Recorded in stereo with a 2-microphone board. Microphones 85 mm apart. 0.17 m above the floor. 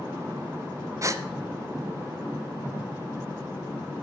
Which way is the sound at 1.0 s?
40° right (ahead or behind).